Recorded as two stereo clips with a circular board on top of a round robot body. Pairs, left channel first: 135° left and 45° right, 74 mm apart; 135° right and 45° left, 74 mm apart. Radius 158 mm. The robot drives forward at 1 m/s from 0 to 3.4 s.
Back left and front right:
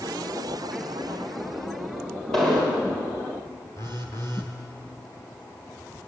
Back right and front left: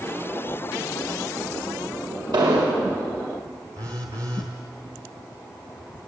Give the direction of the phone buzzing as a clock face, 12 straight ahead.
9 o'clock.